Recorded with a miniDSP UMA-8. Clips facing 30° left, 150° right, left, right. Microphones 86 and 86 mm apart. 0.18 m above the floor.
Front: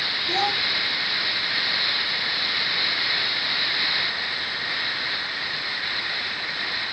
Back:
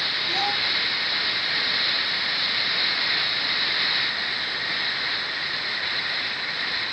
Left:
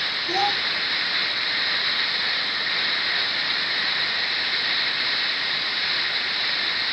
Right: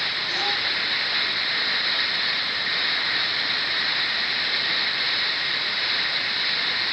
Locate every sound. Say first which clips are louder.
0.3 s a child speaking: front 3 dB, left 7 dB; 80° left, 1.0 m